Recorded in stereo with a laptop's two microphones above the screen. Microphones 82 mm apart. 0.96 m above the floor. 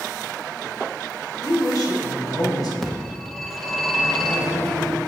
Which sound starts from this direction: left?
A woman speaking, at 1.4 s.